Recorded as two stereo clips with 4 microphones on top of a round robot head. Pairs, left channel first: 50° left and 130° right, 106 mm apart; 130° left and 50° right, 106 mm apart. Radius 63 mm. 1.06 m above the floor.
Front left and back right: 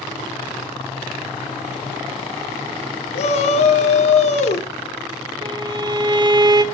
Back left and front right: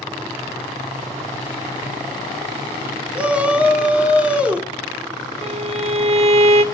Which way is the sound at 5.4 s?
80° right.